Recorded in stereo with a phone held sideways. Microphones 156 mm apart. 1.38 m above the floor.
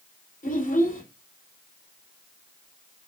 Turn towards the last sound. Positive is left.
turn(degrees=65)  # may be behind; listen again after turning